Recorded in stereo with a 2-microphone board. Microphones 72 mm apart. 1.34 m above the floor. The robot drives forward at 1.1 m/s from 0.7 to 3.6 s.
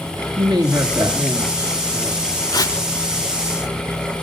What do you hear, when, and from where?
0.4 s a woman speaking: 65° right (ahead or behind), 2 m; by 2.3 s 35° right (ahead or behind), 3 m
2.5 s tearing paper: 65° left (ahead or behind), 1.8 m